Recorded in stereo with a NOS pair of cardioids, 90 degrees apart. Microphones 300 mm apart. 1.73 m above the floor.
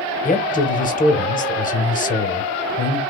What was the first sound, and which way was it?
A man speaking, 25° left.